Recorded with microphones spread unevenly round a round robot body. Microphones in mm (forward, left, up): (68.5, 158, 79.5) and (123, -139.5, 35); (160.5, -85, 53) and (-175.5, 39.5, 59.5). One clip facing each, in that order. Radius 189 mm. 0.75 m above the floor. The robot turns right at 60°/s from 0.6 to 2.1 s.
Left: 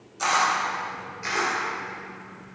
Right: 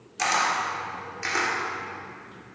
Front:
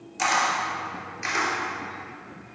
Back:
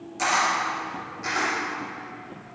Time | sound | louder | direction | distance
0.2 | a camera shutter | left 1 dB, even | 100° right | 3 m